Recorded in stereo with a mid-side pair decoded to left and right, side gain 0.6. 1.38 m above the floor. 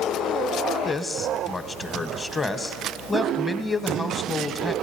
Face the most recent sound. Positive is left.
turn(degrees=20)